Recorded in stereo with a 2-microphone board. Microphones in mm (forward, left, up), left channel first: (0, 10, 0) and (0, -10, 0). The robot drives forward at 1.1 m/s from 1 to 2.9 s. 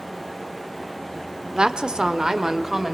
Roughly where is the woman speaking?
Right.